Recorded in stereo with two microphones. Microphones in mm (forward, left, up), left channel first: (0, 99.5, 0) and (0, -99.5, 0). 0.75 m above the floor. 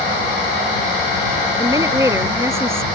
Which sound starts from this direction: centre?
A woman speaking, at 1.6 s.